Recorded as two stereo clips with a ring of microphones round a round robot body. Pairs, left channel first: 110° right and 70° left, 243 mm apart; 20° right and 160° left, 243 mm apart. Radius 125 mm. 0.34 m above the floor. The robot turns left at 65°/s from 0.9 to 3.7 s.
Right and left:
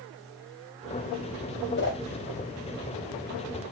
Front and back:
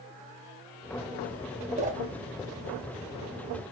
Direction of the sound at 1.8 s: 140° right.